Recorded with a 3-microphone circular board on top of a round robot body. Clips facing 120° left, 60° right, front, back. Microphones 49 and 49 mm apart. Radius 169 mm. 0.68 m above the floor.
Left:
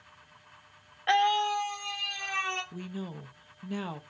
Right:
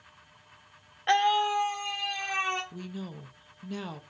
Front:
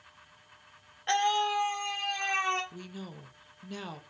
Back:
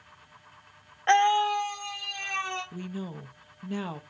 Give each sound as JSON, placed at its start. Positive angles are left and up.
{"t": 1.1, "sound": "a scream", "azimuth_deg": -155, "distance_m": 0.9}
{"t": 2.7, "sound": "a woman speaking", "azimuth_deg": 160, "distance_m": 0.6}